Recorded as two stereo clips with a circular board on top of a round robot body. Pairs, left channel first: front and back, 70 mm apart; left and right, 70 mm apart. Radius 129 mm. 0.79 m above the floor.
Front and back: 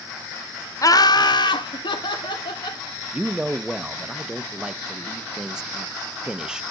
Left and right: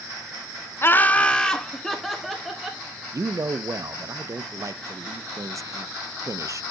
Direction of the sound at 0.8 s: 35° left.